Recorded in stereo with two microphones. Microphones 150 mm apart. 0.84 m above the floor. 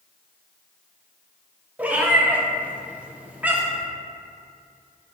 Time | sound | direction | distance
1.8 | a cat meowing | 10° right (ahead or behind) | 0.5 m